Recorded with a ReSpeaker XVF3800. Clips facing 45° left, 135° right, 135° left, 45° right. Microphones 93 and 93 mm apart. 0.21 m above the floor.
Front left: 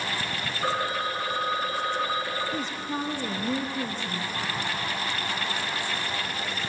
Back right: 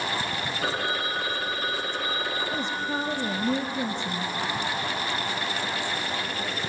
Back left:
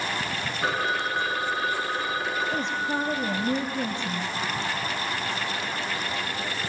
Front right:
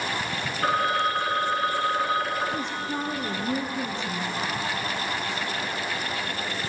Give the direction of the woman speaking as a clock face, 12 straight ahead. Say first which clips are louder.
Back right 2 dB, back left 2 dB; 6 o'clock.